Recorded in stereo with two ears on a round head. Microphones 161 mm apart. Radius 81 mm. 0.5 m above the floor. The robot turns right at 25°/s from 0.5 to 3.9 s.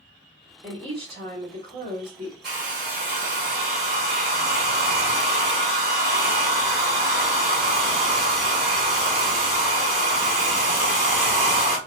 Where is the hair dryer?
110° right, 2.0 m; by 11.8 s 75° right, 2.0 m.